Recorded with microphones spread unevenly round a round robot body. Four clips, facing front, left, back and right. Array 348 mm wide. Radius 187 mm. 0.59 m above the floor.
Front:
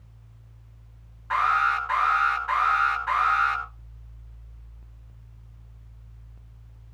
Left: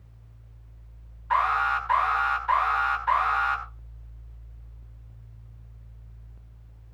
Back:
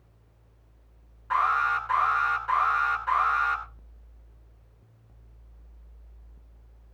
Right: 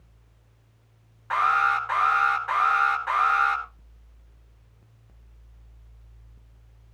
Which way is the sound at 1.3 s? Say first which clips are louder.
Right 1 dB, front 2 dB; 115° right.